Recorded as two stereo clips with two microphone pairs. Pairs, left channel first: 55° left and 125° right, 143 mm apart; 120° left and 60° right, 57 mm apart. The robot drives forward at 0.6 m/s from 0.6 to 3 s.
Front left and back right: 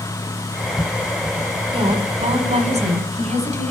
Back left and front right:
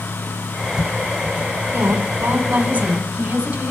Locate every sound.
1.7 s a woman speaking: 85° right, 1.6 m; by 3.7 s 120° right, 1.7 m